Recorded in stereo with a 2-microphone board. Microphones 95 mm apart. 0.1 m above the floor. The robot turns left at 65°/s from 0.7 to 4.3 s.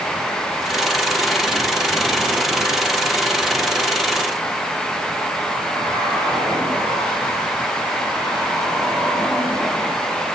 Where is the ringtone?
No ringtone in this recording.